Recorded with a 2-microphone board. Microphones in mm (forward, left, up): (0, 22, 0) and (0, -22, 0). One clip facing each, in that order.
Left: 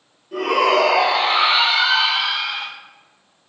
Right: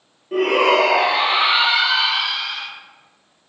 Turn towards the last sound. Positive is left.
turn(degrees=10)  # may be behind; listen again after turning